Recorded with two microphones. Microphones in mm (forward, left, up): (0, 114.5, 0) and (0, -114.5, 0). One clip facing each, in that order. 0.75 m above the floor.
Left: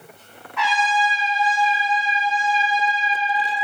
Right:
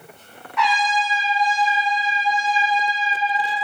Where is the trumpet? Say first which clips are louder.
Even; 60° left (ahead or behind), 1.7 m.